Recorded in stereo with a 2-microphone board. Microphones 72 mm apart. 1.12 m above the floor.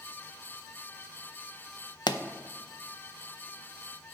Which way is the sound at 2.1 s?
80° left.